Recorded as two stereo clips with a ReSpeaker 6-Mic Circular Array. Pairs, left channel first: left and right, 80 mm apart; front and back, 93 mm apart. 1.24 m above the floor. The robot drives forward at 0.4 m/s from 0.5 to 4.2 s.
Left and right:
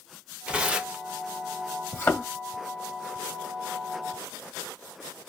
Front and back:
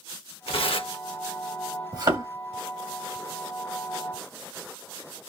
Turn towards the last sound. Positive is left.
turn(degrees=160)